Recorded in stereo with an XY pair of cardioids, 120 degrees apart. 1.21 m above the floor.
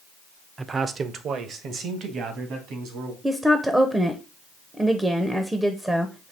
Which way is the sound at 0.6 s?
25° right.